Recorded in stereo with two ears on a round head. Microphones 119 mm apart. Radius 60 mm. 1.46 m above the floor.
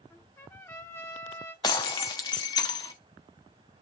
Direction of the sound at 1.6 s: 30° left (ahead or behind).